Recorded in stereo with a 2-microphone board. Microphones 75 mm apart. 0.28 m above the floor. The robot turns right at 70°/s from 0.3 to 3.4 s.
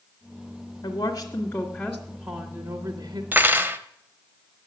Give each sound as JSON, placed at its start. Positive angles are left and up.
{"t": 0.8, "sound": "a woman speaking", "azimuth_deg": 110, "distance_m": 1.8}
{"t": 3.3, "sound": "cutlery clinking", "side_deg": -25, "distance_m": 0.9}